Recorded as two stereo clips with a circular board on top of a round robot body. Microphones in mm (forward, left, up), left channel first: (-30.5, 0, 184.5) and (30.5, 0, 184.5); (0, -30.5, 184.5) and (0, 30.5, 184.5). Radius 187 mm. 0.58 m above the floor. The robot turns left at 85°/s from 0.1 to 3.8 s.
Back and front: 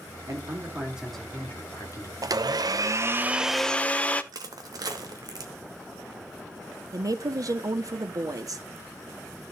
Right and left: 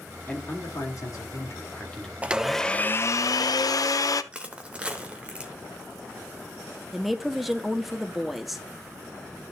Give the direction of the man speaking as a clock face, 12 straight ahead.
1 o'clock.